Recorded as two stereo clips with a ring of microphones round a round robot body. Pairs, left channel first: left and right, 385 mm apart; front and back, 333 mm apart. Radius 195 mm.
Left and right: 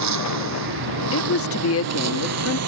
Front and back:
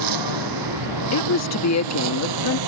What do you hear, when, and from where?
0.0 s a lawn mower: 140° right; by 2.7 s 145° right
1.1 s a woman speaking: 40° left